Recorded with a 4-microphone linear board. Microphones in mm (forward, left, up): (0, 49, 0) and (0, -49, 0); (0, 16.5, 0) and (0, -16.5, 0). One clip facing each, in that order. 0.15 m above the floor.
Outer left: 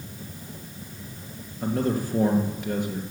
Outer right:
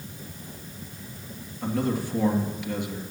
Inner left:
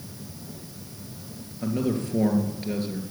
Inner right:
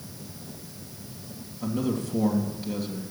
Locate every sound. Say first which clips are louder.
1.6 s a man speaking: outer left 2 dB, inner left 2 dB; 40° left (ahead or behind), 2.5 m